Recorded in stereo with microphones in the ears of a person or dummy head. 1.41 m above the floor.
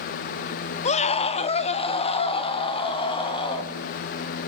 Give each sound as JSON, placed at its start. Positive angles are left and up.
{"t": 0.8, "sound": "a scream", "side_deg": 35, "distance_m": 0.8}